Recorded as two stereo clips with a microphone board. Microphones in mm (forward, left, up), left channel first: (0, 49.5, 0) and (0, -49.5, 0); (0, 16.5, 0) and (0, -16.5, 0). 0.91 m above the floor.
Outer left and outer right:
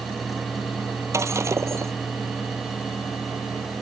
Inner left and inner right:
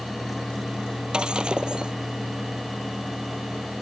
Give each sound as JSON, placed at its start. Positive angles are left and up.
{"t": 1.1, "sound": "breaking glass", "side_deg": -30}